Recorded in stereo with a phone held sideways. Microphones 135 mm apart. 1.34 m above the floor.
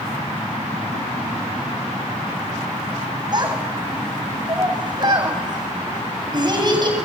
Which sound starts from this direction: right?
A child speaking, at 3.3 s.